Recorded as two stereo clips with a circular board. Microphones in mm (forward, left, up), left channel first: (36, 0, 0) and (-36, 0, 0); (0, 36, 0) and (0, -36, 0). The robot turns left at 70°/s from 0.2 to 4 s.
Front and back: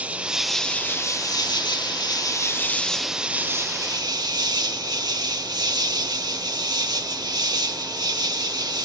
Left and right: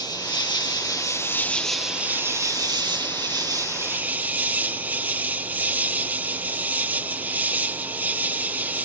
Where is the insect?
110° left; by 8.8 s 155° right.